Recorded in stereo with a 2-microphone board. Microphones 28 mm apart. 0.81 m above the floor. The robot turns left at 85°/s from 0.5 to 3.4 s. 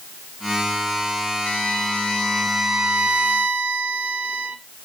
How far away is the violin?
About 1.7 m.